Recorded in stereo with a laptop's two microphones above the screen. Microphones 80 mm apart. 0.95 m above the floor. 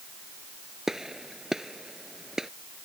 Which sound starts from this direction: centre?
A gunshot, at 0.9 s.